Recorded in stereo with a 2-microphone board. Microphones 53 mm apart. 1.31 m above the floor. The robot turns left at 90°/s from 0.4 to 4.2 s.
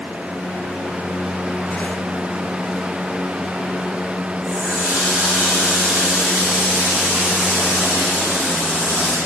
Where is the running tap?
25° right (ahead or behind), 3 m.